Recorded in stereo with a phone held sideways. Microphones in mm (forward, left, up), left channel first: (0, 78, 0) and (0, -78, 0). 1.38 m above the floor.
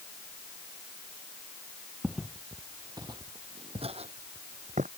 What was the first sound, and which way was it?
Footsteps, centre (ahead or behind).